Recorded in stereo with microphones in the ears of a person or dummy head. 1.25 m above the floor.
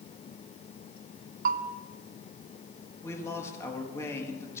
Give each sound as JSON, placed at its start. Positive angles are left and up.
{"t": 1.4, "sound": "a bell", "side_deg": -50, "distance_m": 0.6}
{"t": 3.0, "sound": "a man speaking", "side_deg": 15, "distance_m": 1.8}